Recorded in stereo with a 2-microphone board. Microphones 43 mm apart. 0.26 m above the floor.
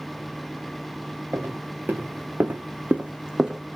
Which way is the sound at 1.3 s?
50° right (ahead or behind).